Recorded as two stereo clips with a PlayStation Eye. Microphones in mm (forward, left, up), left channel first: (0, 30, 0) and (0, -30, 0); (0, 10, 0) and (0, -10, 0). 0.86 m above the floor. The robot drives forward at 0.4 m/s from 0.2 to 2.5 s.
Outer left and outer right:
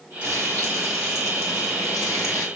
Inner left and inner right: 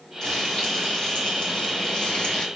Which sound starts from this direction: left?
Frying, at 0.2 s.